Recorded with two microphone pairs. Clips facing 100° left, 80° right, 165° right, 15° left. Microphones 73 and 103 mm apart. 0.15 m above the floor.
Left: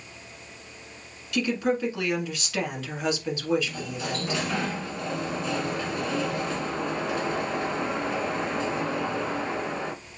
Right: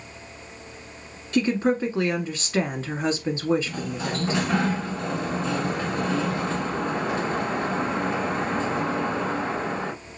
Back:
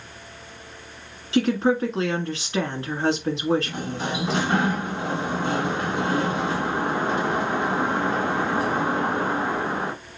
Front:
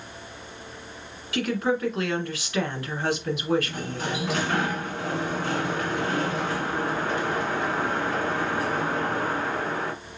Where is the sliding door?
110° right, 1.2 m.